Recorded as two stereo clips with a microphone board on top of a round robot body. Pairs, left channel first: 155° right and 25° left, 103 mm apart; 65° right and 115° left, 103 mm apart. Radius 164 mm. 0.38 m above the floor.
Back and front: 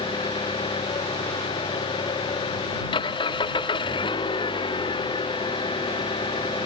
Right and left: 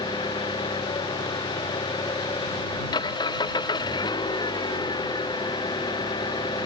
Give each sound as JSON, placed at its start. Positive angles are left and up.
{"t": 0.0, "sound": "an engine running", "azimuth_deg": -115}